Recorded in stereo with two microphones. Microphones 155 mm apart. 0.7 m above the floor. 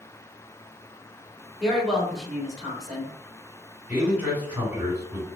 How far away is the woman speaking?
About 2 m.